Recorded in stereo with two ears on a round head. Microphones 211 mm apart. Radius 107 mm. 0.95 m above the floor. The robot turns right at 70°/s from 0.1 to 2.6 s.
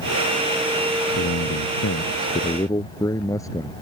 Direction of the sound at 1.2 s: 65° left.